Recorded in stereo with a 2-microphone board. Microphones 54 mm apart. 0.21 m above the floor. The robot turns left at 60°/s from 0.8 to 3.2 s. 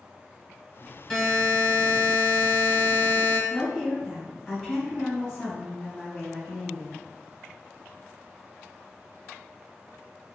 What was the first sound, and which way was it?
A buzzer, 5° left (ahead or behind).